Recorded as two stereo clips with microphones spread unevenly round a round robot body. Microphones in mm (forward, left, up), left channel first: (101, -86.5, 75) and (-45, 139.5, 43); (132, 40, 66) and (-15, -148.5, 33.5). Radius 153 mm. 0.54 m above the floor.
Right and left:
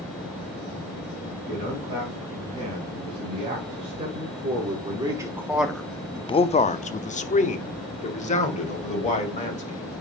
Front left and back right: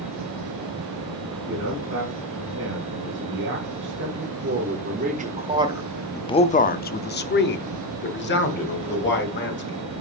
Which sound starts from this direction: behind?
A man speaking, at 1.5 s.